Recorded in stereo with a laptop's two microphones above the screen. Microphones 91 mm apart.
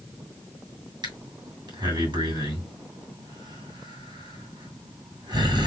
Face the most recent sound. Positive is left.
turn(degrees=-55)  # may be behind; listen again after turning